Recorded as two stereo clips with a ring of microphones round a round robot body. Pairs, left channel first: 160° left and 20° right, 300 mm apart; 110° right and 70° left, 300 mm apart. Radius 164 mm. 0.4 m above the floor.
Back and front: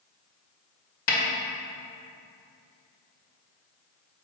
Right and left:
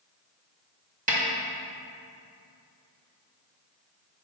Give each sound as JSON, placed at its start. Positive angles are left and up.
{"t": 1.1, "sound": "a snare drum", "azimuth_deg": 125, "distance_m": 1.8}